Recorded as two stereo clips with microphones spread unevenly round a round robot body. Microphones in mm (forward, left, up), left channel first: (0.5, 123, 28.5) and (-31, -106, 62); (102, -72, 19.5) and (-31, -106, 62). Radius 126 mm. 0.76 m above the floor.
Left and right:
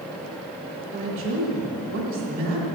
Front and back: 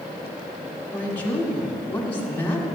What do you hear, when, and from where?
0.9 s a woman speaking: 60° right, 1.8 m